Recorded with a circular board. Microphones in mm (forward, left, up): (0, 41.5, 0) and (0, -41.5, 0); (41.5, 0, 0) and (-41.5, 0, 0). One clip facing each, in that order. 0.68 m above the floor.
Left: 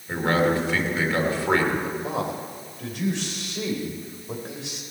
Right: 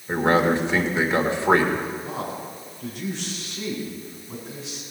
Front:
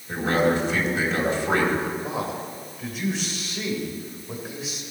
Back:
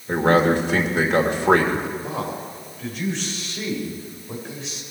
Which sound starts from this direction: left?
A man speaking, at 2.0 s.